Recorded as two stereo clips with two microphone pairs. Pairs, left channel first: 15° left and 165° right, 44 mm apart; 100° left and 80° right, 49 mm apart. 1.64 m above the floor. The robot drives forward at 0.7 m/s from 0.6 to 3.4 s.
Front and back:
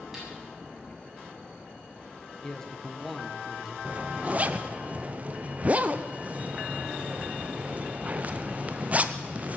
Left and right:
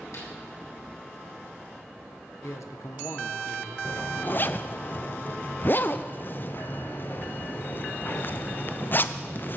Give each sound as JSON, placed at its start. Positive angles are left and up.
{"t": 0.1, "sound": "a snare drum", "azimuth_deg": 120, "distance_m": 8.0}
{"t": 2.4, "sound": "a man speaking", "azimuth_deg": 95, "distance_m": 1.6}
{"t": 3.9, "sound": "a zipper", "azimuth_deg": 145, "distance_m": 0.8}